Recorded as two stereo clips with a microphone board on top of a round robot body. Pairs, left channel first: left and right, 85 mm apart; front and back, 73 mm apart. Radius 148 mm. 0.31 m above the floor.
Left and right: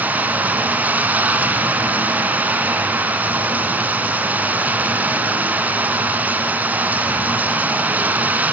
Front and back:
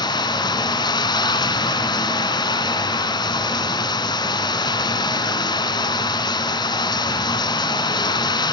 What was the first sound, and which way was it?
Running water, 20° right.